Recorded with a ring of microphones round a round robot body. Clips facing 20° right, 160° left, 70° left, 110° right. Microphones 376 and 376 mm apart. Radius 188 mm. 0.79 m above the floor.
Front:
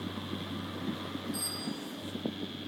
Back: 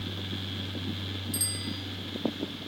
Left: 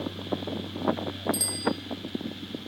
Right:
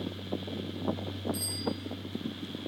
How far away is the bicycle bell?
About 9 m.